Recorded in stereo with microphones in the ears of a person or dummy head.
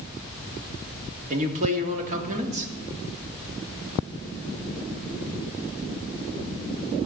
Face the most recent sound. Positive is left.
turn(degrees=-45)  # may be behind; listen again after turning